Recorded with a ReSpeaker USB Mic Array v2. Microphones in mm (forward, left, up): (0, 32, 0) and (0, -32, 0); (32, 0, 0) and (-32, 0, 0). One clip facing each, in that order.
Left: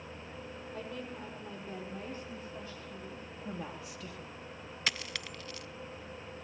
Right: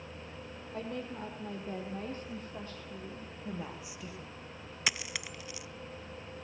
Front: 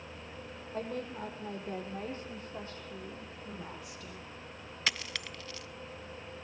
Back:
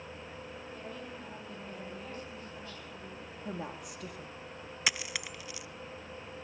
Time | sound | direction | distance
0.7 | a woman speaking | 40° right | 6.5 m
3.5 | a woman speaking | 165° right | 5.5 m
4.9 | a dropped coin | 135° right | 0.5 m